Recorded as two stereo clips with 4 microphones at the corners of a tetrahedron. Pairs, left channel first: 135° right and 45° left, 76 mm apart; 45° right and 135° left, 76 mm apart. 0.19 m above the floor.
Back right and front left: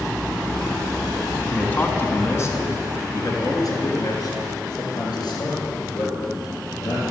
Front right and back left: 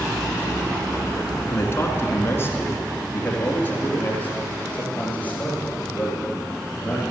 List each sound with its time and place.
1.5 s a man speaking: 75° right, 1.7 m; by 7.0 s 120° right, 5.5 m